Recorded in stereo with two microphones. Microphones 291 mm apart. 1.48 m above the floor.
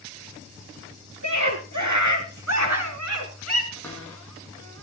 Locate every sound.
1.2 s a scream: 85° right, 4.5 m; by 3.6 s 55° right (ahead or behind), 3 m
3.7 s a cupboard door: 5° left (ahead or behind), 8.5 m